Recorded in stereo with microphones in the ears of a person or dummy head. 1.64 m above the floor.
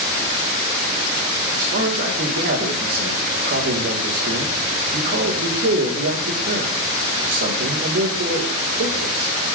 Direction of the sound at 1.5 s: 65° right (ahead or behind).